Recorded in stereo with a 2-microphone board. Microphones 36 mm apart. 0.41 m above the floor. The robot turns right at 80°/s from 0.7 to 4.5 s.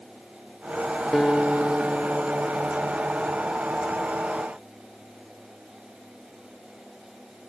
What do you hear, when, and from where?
1.1 s a guitar: 160° left; by 3.4 s 15° right